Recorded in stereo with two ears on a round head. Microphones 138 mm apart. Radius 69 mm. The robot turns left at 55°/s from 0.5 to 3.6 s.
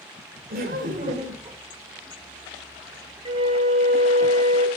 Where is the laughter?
90° right, 2.5 m; by 1.6 s 150° right, 2.5 m.